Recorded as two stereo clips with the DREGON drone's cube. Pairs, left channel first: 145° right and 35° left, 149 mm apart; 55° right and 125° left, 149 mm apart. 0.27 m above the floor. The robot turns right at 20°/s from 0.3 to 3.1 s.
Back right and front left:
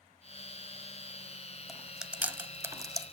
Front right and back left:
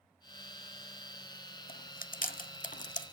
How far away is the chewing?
About 0.7 m.